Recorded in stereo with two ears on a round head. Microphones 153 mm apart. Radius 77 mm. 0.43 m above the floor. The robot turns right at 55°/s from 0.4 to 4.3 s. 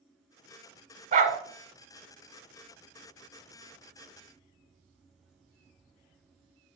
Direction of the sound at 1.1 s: 45° right (ahead or behind).